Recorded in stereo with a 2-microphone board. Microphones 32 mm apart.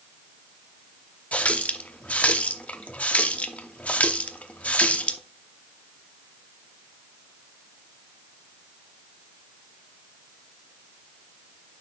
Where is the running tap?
45° left (ahead or behind), 0.7 m.